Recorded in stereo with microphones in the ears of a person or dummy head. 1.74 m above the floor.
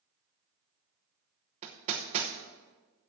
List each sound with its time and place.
1.6 s hammering: 30° right (ahead or behind), 1.0 m